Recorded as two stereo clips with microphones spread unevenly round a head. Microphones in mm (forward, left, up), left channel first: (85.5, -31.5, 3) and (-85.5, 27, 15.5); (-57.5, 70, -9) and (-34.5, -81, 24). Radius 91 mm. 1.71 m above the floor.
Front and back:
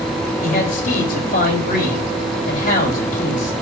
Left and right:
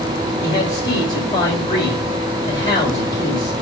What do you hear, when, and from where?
0.4 s a man speaking: 25° left, 4 m